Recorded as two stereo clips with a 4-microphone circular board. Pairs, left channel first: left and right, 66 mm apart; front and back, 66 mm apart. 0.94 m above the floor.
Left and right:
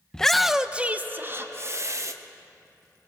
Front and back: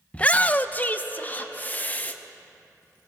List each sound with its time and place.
0.1 s a shout: 30° left, 0.7 m; by 2.1 s 60° right, 1.2 m